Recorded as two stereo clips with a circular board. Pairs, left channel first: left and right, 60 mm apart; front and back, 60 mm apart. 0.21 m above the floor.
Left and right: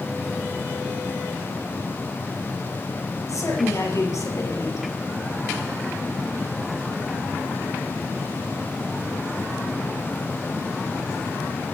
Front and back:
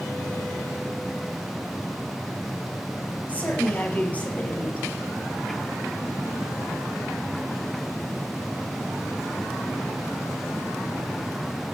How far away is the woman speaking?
About 5.5 m.